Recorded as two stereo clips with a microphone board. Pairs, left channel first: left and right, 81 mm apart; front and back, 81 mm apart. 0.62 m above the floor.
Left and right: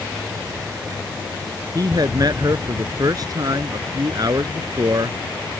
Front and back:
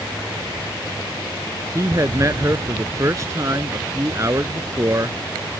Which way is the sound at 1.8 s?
130° right.